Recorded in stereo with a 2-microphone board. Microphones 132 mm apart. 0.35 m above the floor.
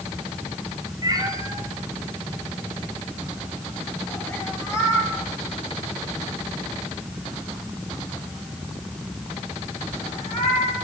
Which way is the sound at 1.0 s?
30° right (ahead or behind).